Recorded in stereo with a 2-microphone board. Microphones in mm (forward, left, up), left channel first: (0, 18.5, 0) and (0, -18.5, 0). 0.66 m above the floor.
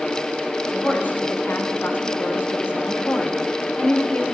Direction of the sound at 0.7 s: 50° left (ahead or behind).